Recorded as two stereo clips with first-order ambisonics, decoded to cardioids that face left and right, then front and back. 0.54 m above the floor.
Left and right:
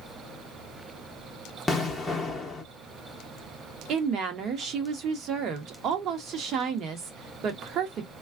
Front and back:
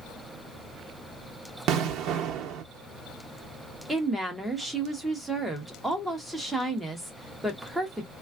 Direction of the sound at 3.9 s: 100° right.